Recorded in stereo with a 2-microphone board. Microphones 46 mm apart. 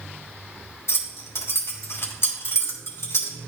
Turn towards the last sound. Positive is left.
turn(degrees=80)